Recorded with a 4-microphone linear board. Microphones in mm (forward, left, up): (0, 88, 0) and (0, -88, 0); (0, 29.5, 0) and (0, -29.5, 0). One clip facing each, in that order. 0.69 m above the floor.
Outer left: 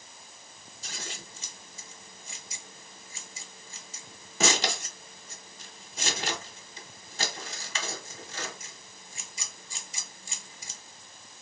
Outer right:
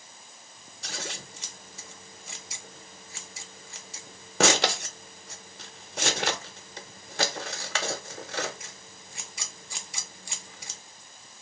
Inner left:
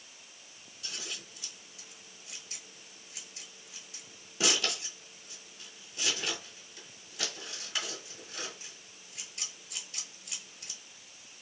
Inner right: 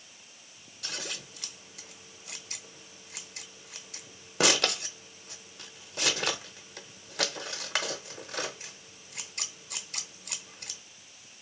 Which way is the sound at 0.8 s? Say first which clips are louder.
Outer right 5 dB, inner right 4 dB; 70° right (ahead or behind).